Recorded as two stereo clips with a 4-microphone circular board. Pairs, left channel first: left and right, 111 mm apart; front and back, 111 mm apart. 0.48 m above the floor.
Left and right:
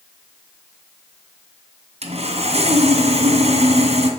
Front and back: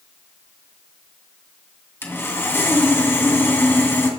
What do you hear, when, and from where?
2.0 s sawing: 70° right, 2.5 m